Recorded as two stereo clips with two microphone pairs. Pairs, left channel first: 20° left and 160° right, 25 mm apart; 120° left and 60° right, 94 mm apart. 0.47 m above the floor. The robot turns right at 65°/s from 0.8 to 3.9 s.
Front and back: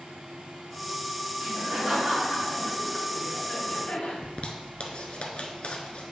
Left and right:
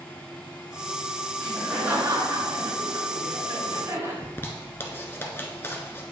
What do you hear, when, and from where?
1.4 s laughter: 165° right, 2.5 m; by 4.1 s straight ahead, 2.5 m
4.2 s a zipper: 60° left, 1.0 m